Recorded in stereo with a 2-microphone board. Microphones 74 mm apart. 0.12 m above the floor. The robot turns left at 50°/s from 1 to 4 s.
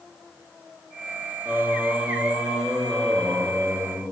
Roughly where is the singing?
Behind right.